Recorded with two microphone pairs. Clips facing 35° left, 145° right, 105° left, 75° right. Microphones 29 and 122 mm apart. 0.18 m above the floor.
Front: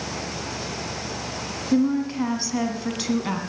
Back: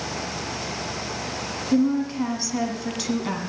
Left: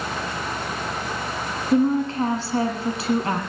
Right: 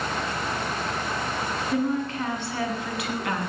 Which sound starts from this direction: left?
A woman speaking, at 1.7 s.